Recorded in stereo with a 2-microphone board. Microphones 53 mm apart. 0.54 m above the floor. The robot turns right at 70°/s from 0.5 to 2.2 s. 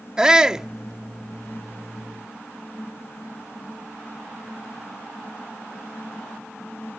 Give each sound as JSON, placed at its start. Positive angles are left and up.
{"t": 0.2, "sound": "a shout", "side_deg": -15}